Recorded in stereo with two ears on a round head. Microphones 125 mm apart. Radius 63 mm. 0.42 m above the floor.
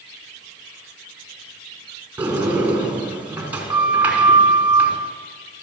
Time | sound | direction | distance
2.2 | a sliding door | 10° right (ahead or behind) | 5 m